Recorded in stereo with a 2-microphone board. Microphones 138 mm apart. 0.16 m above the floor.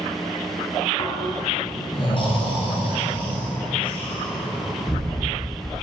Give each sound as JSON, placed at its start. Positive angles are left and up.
{"t": 1.0, "sound": "snoring", "side_deg": 40, "distance_m": 2.0}